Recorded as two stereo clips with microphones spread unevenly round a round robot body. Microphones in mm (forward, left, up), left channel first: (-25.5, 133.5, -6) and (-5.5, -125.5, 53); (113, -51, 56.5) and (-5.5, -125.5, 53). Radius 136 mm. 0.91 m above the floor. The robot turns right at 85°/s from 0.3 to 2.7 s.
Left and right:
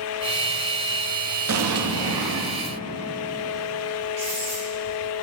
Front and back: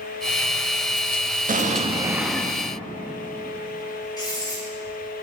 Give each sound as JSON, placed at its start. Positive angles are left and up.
{"t": 1.5, "sound": "an explosion", "azimuth_deg": -125, "distance_m": 0.9}
{"t": 4.2, "sound": "writing", "azimuth_deg": -30, "distance_m": 3.5}